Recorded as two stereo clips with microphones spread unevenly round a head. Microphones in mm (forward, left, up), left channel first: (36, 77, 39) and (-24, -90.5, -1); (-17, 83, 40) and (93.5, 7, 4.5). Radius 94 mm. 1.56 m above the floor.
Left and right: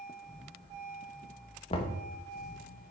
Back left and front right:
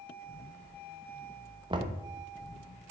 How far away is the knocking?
About 1.2 m.